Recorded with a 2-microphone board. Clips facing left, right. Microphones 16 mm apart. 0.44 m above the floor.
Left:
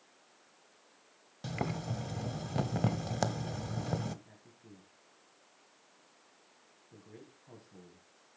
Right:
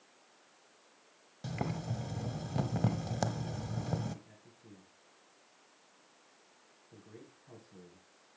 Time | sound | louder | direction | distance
1.4 | boiling | left 1 dB | 15° left (ahead or behind) | 1.1 m
4.2 | a man speaking | even | 10° left (ahead or behind) | 3.5 m